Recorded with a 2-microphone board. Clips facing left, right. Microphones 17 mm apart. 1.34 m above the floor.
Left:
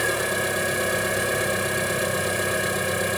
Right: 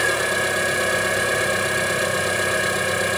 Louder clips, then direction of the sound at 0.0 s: Right 3 dB; 15° right (ahead or behind).